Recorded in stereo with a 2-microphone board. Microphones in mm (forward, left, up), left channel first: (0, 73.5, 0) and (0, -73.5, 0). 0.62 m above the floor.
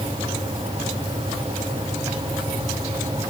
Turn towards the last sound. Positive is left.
No sound to turn to.